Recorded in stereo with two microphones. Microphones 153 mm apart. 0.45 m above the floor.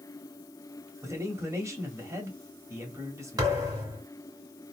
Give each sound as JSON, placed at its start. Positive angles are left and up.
{"t": 1.0, "sound": "a man speaking", "side_deg": -20, "distance_m": 1.9}
{"t": 3.4, "sound": "a thud", "side_deg": -25, "distance_m": 2.5}